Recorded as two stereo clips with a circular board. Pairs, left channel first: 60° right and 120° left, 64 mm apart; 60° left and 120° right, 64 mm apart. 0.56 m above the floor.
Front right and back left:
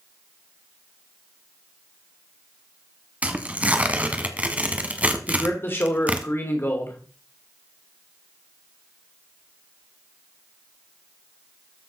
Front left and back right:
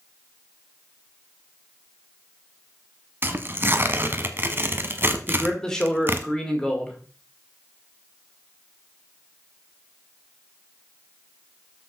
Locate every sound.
3.2 s tearing paper: 170° right, 1.0 m
5.3 s a man speaking: 15° right, 2.0 m